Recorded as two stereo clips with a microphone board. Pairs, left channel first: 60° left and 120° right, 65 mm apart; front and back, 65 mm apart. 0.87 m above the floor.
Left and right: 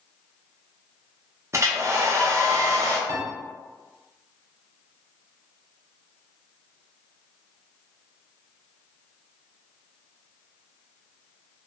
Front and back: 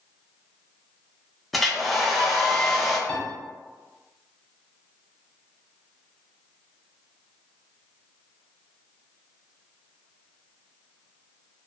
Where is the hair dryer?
90° right, 0.5 m.